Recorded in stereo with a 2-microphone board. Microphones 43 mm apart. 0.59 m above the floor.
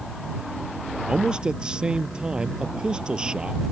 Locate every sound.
1.1 s a man speaking: 25° right (ahead or behind)